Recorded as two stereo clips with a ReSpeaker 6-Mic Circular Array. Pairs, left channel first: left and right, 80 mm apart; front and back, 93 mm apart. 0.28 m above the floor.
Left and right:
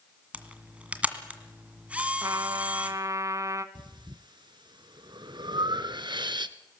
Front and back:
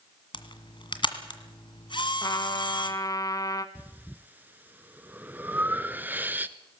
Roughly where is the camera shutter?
Ahead.